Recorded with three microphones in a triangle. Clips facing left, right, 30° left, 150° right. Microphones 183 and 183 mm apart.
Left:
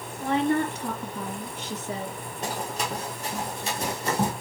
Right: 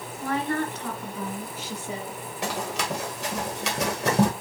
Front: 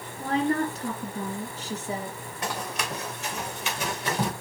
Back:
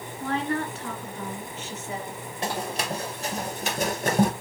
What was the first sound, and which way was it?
A woman speaking, 50° left.